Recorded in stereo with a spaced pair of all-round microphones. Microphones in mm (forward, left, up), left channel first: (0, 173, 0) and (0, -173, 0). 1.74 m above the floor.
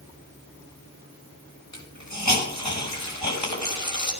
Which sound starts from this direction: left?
A hiss, at 1.7 s.